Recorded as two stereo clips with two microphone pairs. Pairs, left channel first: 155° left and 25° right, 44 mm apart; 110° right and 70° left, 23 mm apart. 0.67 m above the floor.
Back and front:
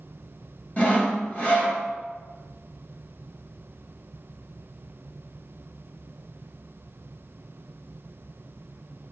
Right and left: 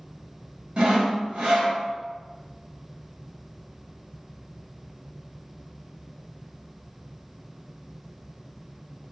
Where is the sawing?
100° left, 1.1 m.